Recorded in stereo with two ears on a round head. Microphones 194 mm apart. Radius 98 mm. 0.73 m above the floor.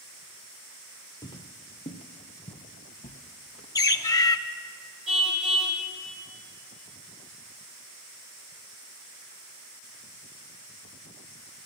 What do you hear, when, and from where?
1.2 s footsteps: 20° left (ahead or behind), 0.9 m; by 3.6 s 35° left (ahead or behind), 1.1 m
3.8 s a bird: 15° left (ahead or behind), 0.6 m
5.1 s a car horn: 5° right (ahead or behind), 3 m